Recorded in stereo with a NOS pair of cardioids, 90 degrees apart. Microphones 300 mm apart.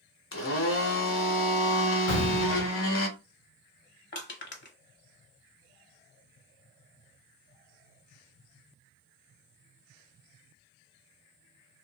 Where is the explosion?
65° left, 1.2 m.